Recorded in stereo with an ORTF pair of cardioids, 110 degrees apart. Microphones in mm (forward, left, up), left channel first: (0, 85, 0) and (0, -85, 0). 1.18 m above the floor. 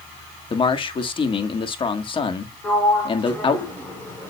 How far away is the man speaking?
About 1.8 m.